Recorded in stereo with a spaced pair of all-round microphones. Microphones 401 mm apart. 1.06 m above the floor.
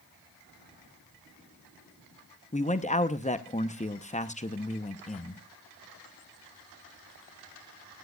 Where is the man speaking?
20° left (ahead or behind), 0.7 m.